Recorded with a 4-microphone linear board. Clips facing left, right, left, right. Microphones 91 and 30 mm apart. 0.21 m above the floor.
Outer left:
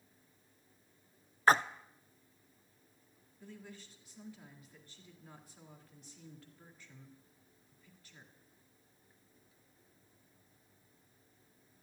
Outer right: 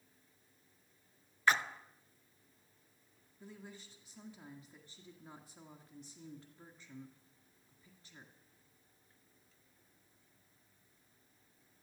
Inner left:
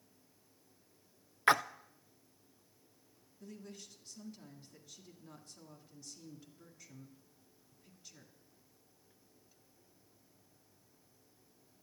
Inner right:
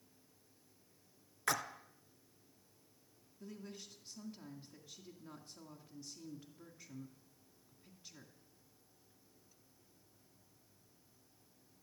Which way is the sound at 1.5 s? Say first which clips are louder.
Outer left 5 dB, inner left 9 dB; 40° left (ahead or behind).